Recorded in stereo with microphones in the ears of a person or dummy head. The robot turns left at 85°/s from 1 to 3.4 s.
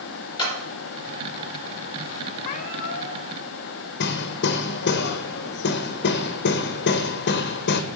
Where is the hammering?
55° left (ahead or behind), 0.6 m.